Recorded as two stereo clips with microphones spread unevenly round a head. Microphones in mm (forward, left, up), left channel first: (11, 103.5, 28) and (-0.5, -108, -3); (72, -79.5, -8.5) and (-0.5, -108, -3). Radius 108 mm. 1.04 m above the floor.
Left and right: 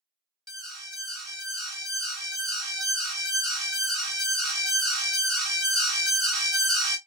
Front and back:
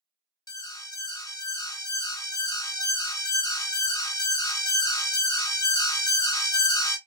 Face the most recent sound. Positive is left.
turn(degrees=-5)